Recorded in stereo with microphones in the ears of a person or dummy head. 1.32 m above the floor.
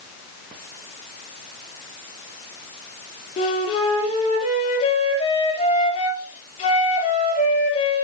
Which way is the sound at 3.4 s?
40° left (ahead or behind).